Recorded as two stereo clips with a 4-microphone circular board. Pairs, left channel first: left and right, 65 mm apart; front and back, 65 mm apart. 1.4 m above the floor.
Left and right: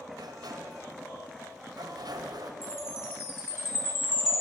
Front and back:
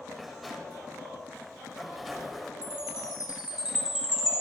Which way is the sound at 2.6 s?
105° left.